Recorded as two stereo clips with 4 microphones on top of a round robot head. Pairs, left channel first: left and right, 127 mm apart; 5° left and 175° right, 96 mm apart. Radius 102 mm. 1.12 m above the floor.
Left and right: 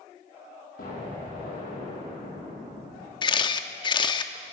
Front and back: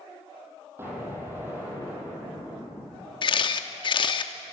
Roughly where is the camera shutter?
Ahead left.